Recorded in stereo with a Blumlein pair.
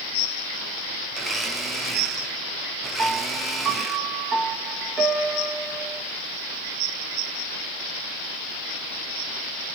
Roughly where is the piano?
Ahead.